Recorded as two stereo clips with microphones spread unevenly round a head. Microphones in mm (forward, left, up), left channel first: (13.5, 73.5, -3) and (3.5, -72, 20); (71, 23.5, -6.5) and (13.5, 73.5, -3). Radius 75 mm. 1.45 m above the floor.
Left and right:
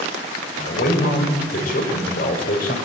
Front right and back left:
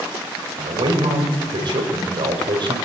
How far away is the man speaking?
About 6.5 m.